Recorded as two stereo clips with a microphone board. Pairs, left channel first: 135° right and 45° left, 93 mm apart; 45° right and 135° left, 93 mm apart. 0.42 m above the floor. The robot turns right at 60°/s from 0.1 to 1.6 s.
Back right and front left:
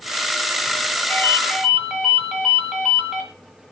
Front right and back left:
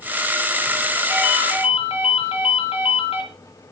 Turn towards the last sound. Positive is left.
turn(degrees=-40)